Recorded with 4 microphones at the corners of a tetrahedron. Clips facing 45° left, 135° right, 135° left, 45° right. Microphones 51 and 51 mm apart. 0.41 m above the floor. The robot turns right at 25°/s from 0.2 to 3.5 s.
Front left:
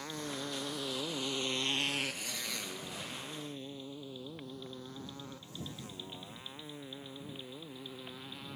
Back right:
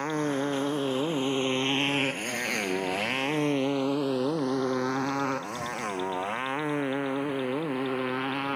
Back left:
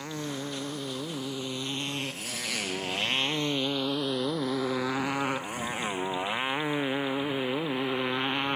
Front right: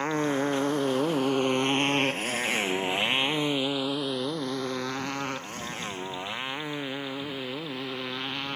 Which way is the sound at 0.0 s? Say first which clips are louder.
Back right 13 dB, front right 9 dB; 90° right.